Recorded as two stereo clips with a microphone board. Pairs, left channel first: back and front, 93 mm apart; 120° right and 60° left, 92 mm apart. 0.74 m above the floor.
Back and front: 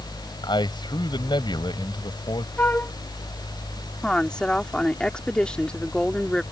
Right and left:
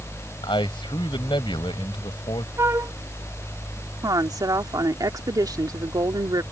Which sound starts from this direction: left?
A woman speaking, at 4.0 s.